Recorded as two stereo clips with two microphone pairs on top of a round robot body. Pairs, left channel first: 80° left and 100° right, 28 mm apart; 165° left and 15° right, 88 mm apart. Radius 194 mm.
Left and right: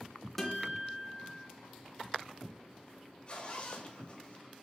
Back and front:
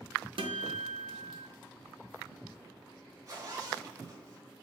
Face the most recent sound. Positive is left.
turn(degrees=25)